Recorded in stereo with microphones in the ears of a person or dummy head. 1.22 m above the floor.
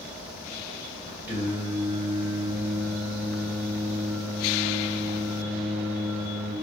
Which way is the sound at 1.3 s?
10° right (ahead or behind).